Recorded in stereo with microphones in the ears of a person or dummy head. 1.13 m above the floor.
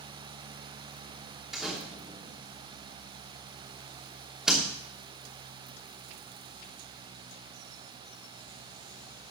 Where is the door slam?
5° right (ahead or behind), 2.5 m.